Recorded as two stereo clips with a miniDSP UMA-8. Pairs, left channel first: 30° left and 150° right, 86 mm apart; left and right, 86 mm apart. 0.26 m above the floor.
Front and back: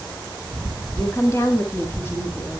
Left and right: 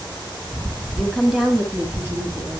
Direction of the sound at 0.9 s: 10° left.